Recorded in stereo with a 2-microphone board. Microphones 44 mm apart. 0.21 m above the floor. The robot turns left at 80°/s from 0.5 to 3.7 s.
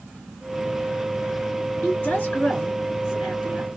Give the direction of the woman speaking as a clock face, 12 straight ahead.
9 o'clock.